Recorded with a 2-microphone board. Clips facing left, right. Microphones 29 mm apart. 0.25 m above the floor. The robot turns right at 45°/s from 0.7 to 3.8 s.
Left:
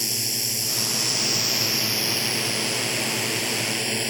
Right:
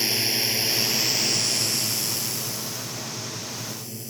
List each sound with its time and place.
0.0 s a drone: 25° right; by 4.1 s 110° left